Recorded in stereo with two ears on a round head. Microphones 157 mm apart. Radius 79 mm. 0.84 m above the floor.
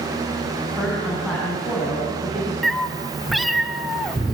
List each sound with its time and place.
0.8 s a woman speaking: 5° left (ahead or behind), 7 m
2.6 s a cat meowing: centre (ahead or behind), 0.9 m